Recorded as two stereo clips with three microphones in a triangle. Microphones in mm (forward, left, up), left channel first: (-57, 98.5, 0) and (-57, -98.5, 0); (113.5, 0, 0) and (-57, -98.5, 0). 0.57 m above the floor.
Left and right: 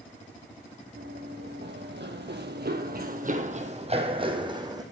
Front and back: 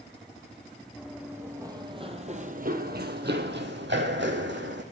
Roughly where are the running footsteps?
Ahead right.